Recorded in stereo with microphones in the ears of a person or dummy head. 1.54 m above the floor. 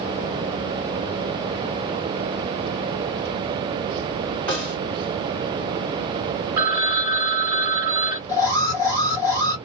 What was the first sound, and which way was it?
A snare drum, 5° left (ahead or behind).